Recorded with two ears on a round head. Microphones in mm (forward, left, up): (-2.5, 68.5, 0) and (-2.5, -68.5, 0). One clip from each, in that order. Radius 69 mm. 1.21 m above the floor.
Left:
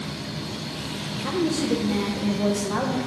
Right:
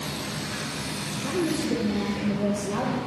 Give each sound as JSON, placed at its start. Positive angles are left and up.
{"t": 1.2, "sound": "a woman speaking", "side_deg": 25, "distance_m": 0.6}